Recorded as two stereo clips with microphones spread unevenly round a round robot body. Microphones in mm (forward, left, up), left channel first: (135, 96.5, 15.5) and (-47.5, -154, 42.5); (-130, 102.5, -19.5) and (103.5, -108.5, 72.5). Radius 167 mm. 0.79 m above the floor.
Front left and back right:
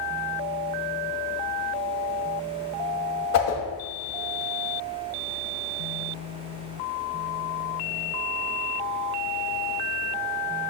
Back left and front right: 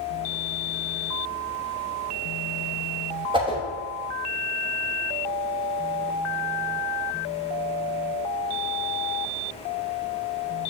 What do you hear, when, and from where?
3.3 s a whoosh: 40° left, 1.2 m